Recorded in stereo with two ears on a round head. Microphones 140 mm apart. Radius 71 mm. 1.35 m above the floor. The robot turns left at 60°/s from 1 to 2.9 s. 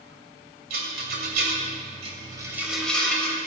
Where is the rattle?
60° right (ahead or behind), 2.5 m; by 3.4 s 5° left (ahead or behind), 2.5 m.